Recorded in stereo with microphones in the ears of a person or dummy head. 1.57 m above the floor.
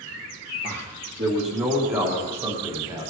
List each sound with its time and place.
0.6 s a man speaking: 35° right (ahead or behind), 1.5 m